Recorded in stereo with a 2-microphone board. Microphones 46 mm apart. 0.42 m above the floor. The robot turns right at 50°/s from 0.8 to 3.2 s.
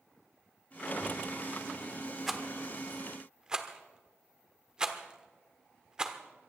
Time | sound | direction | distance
2.3 | a rattle | 5° right (ahead or behind) | 1.3 m